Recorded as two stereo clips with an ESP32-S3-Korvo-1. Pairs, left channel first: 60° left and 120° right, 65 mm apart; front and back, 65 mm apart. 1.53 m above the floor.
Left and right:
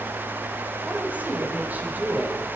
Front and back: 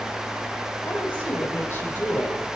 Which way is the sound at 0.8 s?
55° right.